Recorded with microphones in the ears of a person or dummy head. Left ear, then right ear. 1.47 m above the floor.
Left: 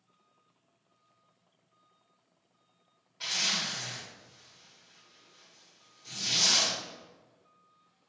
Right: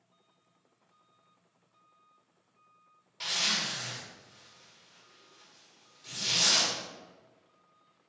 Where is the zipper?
30° right (ahead or behind), 1.5 m.